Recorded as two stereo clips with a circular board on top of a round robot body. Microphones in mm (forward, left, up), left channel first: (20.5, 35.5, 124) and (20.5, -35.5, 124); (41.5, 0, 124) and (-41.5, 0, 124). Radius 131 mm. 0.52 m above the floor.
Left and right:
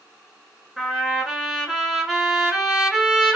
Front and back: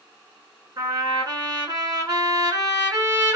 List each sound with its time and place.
0.8 s a trumpet: 175° right, 1.7 m